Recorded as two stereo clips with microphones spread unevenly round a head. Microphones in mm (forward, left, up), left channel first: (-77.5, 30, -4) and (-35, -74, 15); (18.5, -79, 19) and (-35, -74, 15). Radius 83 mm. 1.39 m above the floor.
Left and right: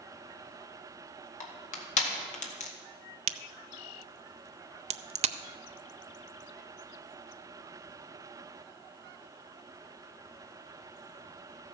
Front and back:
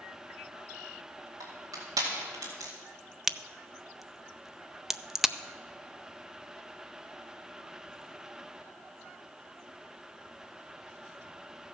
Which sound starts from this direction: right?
A crack, at 3.3 s.